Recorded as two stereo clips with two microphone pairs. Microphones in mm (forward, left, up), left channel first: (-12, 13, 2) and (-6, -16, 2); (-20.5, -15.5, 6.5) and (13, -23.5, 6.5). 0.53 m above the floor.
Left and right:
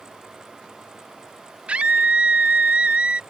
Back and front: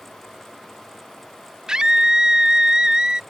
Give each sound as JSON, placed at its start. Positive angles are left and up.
{"t": 1.7, "sound": "a scream", "azimuth_deg": -70}